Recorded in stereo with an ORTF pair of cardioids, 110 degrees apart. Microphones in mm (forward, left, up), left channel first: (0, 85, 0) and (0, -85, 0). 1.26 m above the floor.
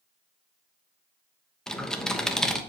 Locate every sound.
1.7 s typing on a keyboard: 5° left, 1.0 m